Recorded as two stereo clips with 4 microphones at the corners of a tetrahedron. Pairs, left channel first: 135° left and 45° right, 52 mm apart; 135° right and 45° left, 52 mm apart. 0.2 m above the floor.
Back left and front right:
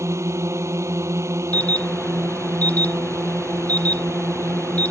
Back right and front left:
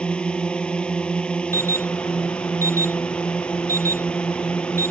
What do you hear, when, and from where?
0.0 s a drone: 65° right
1.5 s an alarm: 165° right